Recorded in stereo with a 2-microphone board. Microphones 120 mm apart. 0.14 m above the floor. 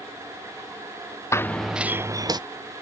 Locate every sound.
1.3 s running footsteps: 25° left (ahead or behind); by 2.4 s 35° right (ahead or behind)